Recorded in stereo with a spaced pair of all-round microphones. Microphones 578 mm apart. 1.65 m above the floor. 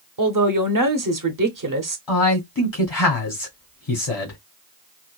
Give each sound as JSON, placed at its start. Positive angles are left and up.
{"t": 0.2, "sound": "a man speaking", "side_deg": -35, "distance_m": 0.8}
{"t": 2.1, "sound": "a man speaking", "side_deg": 50, "distance_m": 1.9}